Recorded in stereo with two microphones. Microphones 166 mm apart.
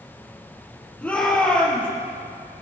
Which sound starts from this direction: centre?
A shout, at 1.0 s.